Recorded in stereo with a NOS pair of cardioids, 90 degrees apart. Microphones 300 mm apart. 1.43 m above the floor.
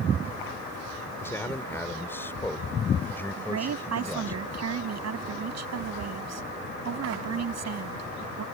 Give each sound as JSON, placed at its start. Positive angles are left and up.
{"t": 1.2, "sound": "a man speaking", "azimuth_deg": 10}
{"t": 3.4, "sound": "a woman speaking", "azimuth_deg": -55}